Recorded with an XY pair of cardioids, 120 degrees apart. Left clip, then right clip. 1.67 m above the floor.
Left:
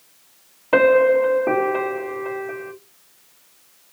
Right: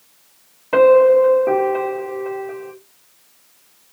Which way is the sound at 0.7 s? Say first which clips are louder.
Right 4 dB; 25° left.